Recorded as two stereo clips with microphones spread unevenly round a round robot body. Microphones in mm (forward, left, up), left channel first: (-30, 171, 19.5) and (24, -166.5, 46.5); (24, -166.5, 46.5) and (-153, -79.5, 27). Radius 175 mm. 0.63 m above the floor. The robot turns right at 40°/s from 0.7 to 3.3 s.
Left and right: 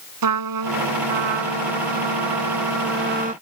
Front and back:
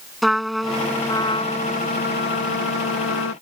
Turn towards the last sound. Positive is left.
turn(degrees=-10)